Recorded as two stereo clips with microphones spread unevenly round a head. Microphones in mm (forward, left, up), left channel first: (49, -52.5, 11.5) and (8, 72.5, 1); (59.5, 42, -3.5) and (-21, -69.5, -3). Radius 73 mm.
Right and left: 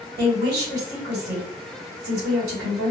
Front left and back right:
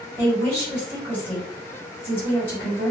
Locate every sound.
0.2 s a woman speaking: 130° left, 1.7 m